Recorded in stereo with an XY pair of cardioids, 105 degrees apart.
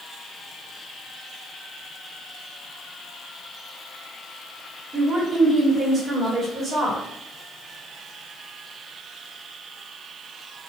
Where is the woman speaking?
40° right, 1.2 m.